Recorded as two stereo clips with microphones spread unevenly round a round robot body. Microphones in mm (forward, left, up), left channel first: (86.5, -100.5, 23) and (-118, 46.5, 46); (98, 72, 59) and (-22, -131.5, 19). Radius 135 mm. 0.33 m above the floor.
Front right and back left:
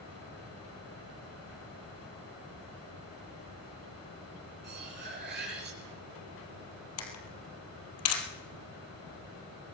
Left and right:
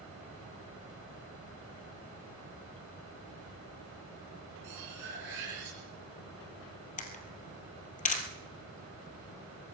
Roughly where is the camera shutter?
Ahead.